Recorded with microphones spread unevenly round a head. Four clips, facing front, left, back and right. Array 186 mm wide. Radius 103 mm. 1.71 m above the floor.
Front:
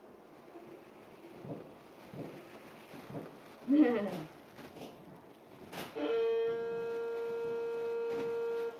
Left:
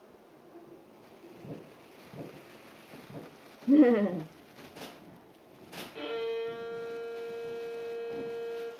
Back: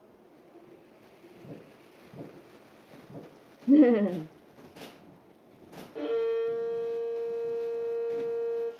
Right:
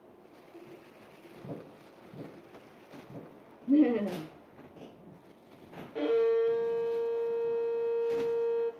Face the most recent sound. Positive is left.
turn(degrees=-140)